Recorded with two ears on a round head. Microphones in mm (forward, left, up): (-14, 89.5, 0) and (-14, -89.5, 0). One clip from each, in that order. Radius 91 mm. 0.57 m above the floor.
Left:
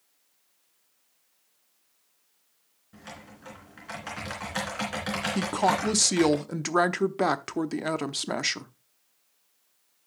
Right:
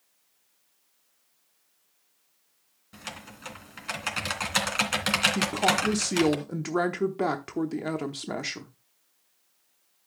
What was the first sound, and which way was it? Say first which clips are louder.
Typing on a keyboard: right 4 dB; 80° right.